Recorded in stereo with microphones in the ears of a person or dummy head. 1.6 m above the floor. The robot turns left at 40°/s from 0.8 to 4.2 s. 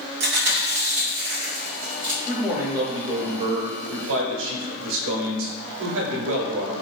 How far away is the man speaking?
About 0.7 m.